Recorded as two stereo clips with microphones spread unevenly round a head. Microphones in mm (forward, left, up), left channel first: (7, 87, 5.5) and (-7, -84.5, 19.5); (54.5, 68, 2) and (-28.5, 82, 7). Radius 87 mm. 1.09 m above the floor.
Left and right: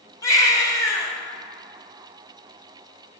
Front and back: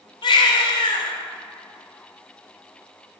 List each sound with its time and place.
0.2 s a baby crying: 10° left, 2.0 m